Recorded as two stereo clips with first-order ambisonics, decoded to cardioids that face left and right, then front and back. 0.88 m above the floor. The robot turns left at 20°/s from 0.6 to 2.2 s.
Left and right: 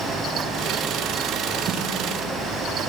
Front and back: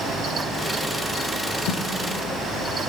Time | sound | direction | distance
1.7 | a snare drum | 30° right | 4 m